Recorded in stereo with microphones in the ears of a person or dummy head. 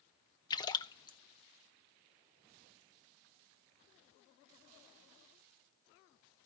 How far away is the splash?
About 0.5 m.